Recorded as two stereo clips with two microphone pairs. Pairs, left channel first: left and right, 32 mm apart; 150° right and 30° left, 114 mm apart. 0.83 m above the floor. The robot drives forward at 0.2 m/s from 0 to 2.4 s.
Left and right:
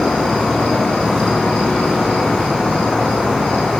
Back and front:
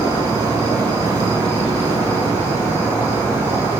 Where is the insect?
75° left, 1.2 m; by 3.8 s 105° left, 1.2 m.